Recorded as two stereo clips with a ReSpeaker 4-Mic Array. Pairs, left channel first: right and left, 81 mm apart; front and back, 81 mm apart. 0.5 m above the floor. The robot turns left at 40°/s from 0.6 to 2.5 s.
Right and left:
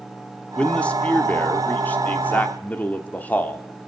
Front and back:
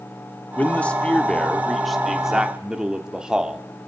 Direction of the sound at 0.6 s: 35° right.